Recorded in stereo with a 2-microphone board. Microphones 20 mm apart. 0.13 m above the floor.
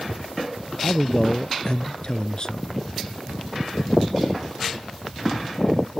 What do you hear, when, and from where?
0.8 s a man speaking: 40° left (ahead or behind); by 2.8 s 35° left (ahead or behind)